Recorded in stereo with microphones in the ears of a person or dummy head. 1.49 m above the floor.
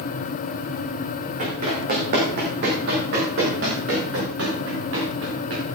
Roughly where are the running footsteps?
Right.